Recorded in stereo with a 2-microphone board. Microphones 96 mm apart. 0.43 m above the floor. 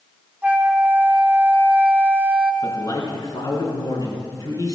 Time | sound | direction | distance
0.4 | a flute | 15° right (ahead or behind) | 1.0 m
2.6 | a man speaking | 40° left (ahead or behind) | 4 m